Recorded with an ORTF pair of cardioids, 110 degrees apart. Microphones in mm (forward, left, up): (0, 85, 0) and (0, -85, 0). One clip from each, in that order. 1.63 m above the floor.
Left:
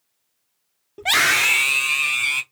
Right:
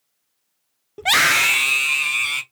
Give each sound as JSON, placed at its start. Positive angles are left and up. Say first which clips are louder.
{"t": 1.0, "sound": "a scream", "louder": "right 1 dB", "azimuth_deg": -15, "distance_m": 0.6}